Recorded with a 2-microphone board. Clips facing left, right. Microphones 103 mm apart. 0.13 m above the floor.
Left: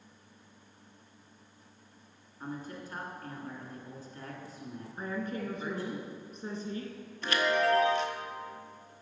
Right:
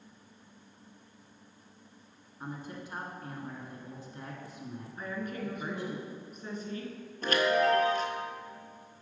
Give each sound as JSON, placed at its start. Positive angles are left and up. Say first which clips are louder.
{"t": 2.4, "sound": "a man speaking", "louder": "left 1 dB", "side_deg": -20, "distance_m": 1.2}
{"t": 5.0, "sound": "a woman speaking", "louder": "left 2 dB", "side_deg": 30, "distance_m": 1.6}
{"t": 7.2, "sound": "a chime", "louder": "right 2 dB", "side_deg": -45, "distance_m": 0.8}